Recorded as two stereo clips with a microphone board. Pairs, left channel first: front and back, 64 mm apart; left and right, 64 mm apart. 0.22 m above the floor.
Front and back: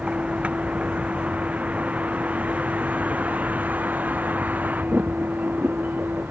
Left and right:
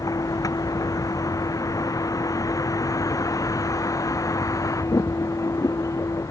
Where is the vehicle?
110° left; by 6.3 s 120° left.